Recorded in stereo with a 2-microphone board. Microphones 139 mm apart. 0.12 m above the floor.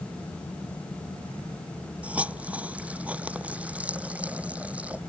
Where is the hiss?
10° right (ahead or behind).